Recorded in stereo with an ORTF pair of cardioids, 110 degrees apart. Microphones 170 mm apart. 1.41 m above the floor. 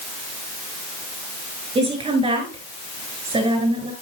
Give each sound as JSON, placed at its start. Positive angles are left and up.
{"t": 1.8, "sound": "a woman speaking", "azimuth_deg": -35, "distance_m": 8.5}